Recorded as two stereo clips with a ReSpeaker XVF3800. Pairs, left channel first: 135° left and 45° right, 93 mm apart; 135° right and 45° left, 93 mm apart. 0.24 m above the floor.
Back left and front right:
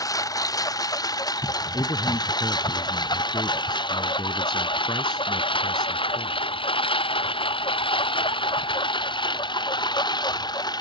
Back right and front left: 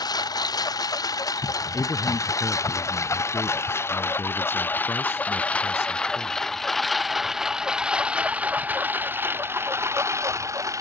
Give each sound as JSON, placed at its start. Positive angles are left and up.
{"t": 0.0, "sound": "a lawn mower", "azimuth_deg": -175}
{"t": 1.7, "sound": "a man speaking", "azimuth_deg": 165}